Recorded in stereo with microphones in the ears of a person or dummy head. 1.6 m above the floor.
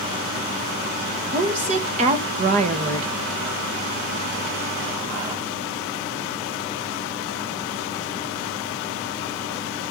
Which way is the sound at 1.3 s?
30° right (ahead or behind).